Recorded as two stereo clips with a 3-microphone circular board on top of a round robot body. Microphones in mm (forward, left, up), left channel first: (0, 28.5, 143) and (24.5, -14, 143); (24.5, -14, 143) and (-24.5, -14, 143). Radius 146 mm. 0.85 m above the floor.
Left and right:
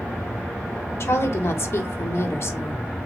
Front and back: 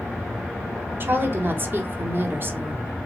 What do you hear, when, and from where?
1.0 s a woman speaking: 140° left, 1.5 m